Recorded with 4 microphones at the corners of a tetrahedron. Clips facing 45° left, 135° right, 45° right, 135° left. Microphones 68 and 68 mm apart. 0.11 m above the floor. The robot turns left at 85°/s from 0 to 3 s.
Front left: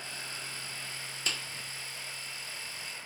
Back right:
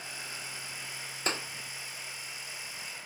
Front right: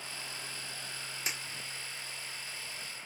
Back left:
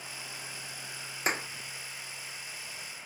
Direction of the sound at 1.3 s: 175° left.